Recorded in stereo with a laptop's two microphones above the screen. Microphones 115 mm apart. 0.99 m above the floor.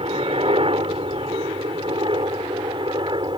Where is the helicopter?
60° right (ahead or behind); by 3.4 s 45° right (ahead or behind).